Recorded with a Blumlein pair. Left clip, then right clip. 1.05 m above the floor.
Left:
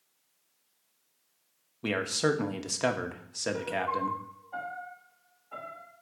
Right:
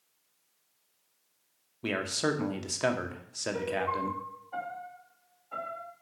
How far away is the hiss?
I don't hear a hiss.